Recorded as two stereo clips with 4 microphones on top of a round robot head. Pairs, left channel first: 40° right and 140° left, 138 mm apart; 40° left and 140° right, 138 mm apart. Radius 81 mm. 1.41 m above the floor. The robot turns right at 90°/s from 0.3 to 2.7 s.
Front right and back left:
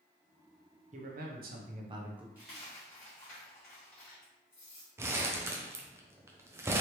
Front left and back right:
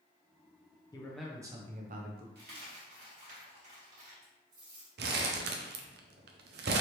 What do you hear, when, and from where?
0.9 s a man speaking: 105° left, 0.9 m; by 2.2 s 135° right, 0.9 m
2.4 s a dropped coin: 145° right, 1.7 m; by 4.9 s 115° right, 1.7 m
5.0 s crumpling: 145° right, 0.6 m